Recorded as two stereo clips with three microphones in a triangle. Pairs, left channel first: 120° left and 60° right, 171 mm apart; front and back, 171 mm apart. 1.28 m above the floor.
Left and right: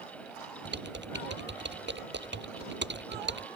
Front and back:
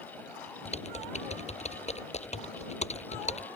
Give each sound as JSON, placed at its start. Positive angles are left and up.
{"t": 0.7, "sound": "typing on a keyboard", "azimuth_deg": -50}